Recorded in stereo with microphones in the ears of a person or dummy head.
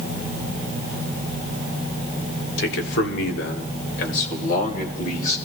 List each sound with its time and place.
2.6 s a man speaking: 65° left (ahead or behind), 1.4 m; by 5.4 s 50° left (ahead or behind), 3 m